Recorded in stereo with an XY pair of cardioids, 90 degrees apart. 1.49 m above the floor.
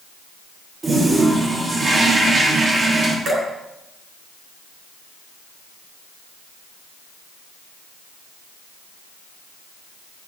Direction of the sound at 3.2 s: 65° right.